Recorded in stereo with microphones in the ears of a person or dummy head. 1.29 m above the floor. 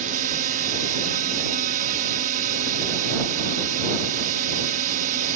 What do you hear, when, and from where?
0.0 s a drone: 40° right (ahead or behind)